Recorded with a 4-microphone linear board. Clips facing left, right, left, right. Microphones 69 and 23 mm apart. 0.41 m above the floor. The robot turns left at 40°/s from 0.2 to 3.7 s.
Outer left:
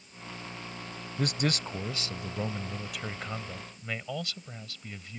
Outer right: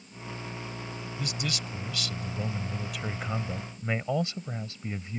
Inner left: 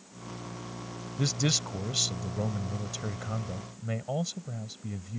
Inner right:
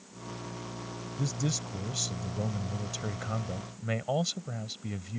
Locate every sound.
1.2 s a man speaking: 70° left; by 5.2 s 30° right